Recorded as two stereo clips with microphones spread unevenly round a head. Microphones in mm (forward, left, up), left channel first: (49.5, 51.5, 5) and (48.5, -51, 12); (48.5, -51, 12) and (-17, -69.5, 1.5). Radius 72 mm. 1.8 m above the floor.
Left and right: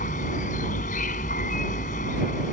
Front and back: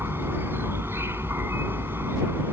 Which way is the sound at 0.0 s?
120° left.